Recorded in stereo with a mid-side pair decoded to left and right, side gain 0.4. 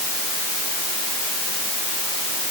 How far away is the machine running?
I don't hear a machine running.